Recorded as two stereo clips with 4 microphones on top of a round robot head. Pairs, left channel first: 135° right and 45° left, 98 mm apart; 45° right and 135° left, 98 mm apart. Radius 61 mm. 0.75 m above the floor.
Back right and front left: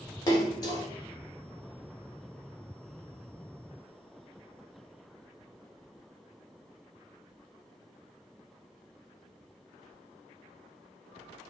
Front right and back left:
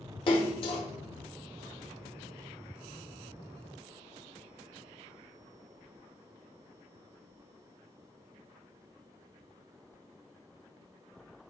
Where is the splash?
80° right, 1.7 m.